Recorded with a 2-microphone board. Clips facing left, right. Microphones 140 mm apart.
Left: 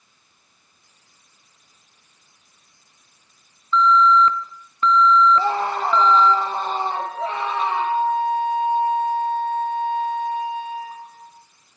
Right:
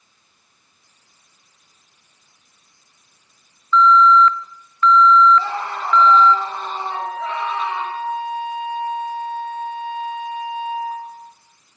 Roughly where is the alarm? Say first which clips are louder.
Right 3 dB; left.